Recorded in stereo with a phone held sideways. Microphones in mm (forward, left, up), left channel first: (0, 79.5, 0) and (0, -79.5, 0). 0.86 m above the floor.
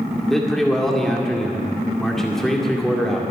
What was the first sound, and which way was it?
A man speaking, centre (ahead or behind).